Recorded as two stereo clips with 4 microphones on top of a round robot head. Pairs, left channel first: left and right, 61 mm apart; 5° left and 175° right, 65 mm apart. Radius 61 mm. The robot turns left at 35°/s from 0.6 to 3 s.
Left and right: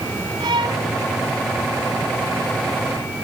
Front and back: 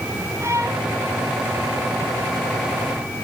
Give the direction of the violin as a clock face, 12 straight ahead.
4 o'clock.